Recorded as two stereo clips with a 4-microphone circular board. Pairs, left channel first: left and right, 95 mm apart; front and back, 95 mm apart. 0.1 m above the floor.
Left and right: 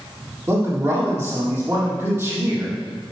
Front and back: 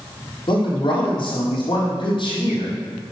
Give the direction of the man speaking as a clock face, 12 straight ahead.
1 o'clock.